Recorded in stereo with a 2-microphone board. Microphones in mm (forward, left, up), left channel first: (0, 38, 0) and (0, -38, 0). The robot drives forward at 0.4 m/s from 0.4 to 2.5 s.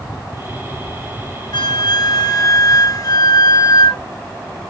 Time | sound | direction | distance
1.5 | a flute | 70° left (ahead or behind) | 0.8 m